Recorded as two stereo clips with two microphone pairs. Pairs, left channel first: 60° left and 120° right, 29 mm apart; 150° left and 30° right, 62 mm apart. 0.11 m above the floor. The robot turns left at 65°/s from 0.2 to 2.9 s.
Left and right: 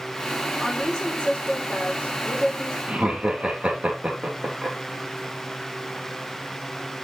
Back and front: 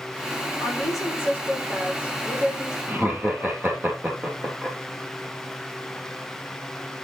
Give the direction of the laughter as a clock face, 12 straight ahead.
3 o'clock.